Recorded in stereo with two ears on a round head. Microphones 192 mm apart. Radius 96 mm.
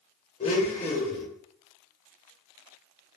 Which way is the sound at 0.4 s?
30° left (ahead or behind).